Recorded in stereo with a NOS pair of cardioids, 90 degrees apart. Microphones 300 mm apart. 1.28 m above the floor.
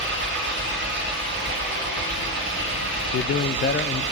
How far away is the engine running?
About 7.5 m.